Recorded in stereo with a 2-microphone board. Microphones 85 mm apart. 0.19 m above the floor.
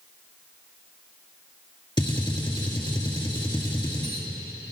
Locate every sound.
2.0 s a gunshot: 65° left (ahead or behind), 1.7 m